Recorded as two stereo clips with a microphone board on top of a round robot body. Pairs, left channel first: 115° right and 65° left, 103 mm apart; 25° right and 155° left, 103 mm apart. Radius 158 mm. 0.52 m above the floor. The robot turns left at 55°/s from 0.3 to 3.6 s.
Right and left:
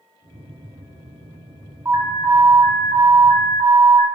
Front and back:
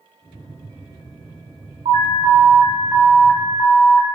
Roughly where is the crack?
No crack in this recording.